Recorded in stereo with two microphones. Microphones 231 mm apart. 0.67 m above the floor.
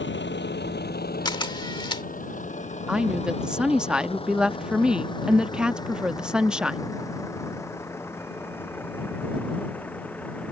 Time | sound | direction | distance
0.0 | a vehicle | 55° left (ahead or behind) | ?
1.2 | a camera shutter | 20° left (ahead or behind) | ?
2.9 | a woman speaking | 5° right (ahead or behind) | ?